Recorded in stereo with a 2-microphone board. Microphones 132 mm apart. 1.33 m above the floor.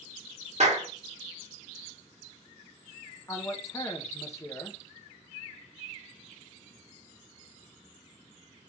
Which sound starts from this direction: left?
A man speaking, at 3.3 s.